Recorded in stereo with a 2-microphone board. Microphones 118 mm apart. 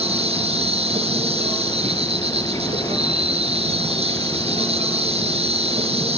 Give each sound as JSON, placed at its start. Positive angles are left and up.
{"t": 0.0, "sound": "an insect", "side_deg": -55, "distance_m": 4.0}